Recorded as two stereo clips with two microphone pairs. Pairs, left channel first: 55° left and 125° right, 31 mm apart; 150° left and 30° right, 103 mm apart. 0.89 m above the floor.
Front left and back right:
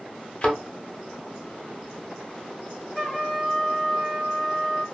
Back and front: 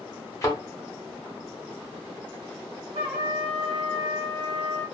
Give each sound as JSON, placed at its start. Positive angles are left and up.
{"t": 0.4, "sound": "a thud", "azimuth_deg": 100, "distance_m": 0.8}
{"t": 3.0, "sound": "a trumpet", "azimuth_deg": -25, "distance_m": 1.3}